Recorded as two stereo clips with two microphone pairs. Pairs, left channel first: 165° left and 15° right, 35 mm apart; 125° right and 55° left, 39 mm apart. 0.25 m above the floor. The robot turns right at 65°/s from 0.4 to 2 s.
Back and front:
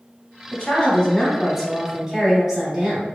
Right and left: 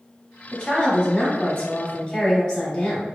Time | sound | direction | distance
0.5 | a woman speaking | straight behind | 1.0 m